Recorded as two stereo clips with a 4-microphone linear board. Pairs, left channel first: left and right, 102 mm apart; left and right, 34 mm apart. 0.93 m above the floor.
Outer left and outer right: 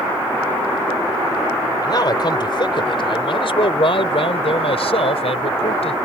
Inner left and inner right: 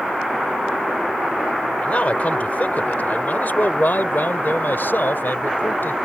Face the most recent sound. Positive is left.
turn(degrees=80)